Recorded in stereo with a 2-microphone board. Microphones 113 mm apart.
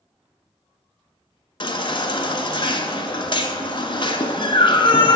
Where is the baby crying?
50° left (ahead or behind), 0.5 m.